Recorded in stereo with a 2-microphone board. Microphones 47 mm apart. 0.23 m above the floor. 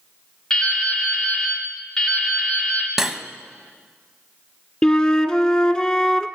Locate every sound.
0.5 s dripping: 15° left (ahead or behind), 2.0 m
3.0 s cutlery clinking: 10° right (ahead or behind), 0.7 m
4.8 s a flute: 20° left (ahead or behind), 0.6 m